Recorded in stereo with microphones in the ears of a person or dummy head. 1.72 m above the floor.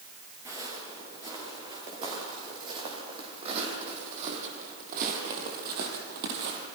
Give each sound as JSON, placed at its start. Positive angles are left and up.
{"t": 0.5, "sound": "footsteps", "side_deg": -20, "distance_m": 8.0}